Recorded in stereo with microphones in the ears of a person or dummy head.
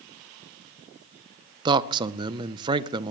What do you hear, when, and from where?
1.6 s a man speaking: 25° right (ahead or behind), 0.7 m